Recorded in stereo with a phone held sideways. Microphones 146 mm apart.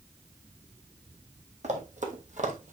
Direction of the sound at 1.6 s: 55° right (ahead or behind).